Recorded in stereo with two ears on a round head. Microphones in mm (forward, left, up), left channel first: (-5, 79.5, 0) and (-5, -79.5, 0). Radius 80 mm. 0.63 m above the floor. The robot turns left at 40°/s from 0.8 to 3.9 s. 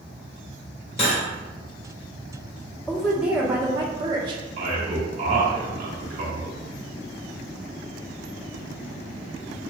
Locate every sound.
1.0 s cutlery clinking: 35° left (ahead or behind), 1.6 m; by 1.2 s 25° left (ahead or behind), 1.6 m
2.9 s a woman speaking: 5° left, 0.8 m; by 4.4 s 35° right, 0.8 m
4.6 s a man speaking: 50° right (ahead or behind), 1.6 m